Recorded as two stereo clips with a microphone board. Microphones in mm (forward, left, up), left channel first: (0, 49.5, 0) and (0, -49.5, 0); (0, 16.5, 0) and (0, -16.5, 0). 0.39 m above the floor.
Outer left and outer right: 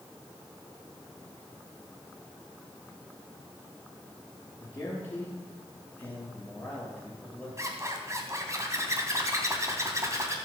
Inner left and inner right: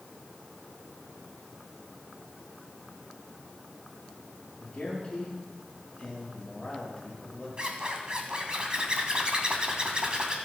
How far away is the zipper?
About 3 m.